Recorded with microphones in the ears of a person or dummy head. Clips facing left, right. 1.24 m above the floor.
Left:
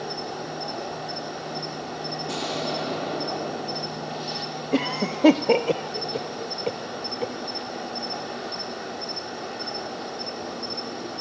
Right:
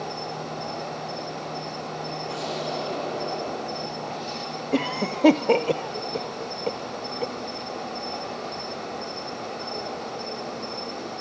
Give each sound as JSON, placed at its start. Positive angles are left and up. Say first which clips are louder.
{"t": 0.0, "sound": "an insect", "louder": "even", "side_deg": 15, "distance_m": 2.5}
{"t": 2.3, "sound": "an explosion", "louder": "left 2 dB", "side_deg": 60, "distance_m": 8.5}
{"t": 4.7, "sound": "a cough", "louder": "left 1 dB", "side_deg": 0, "distance_m": 0.6}